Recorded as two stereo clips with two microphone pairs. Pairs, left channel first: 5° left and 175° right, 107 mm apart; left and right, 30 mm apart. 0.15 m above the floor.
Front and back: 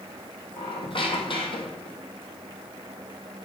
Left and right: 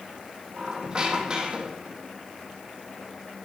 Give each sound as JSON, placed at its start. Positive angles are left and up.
{"t": 0.6, "sound": "a squeak", "azimuth_deg": -30, "distance_m": 1.3}